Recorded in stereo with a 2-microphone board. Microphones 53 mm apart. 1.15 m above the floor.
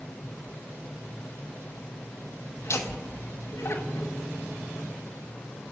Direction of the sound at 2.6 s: 55° left (ahead or behind).